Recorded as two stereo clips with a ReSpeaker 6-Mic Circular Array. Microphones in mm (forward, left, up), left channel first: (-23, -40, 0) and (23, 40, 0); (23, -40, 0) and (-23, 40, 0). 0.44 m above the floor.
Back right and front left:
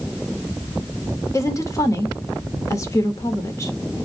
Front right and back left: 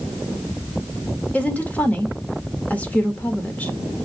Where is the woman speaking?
125° right, 1.3 m.